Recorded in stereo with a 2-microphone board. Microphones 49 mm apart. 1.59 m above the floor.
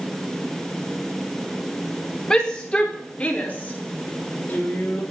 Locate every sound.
2.3 s a shout: 20° left (ahead or behind), 4.5 m; by 5.0 s 45° left (ahead or behind), 5 m